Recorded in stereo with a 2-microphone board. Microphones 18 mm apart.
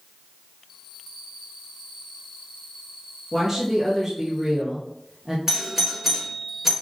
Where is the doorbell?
15° right (ahead or behind), 1.6 m.